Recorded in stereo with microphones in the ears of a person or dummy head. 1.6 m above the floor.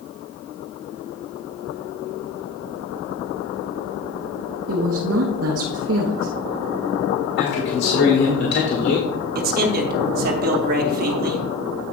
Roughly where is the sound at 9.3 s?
Right.